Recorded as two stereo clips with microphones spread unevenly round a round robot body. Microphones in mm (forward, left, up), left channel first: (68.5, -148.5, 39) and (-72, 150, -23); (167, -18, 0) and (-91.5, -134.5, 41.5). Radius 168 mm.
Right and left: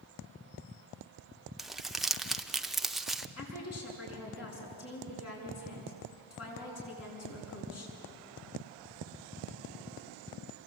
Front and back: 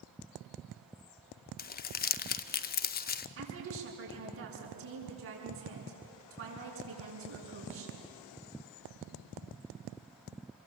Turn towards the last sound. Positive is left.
turn(degrees=-115)